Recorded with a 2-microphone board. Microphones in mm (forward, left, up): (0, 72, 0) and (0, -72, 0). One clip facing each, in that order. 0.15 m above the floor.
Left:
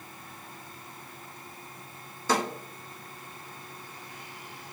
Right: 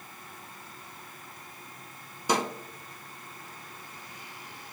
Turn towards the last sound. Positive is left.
turn(degrees=-15)  # may be behind; listen again after turning